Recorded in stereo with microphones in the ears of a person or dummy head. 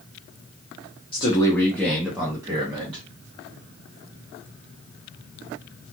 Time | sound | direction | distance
1.1 | a man speaking | 30° left (ahead or behind) | 0.9 m